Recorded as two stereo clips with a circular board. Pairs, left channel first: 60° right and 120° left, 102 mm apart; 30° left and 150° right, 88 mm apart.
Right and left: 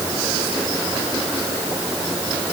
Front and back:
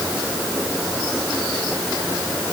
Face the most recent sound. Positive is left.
No sound to turn to.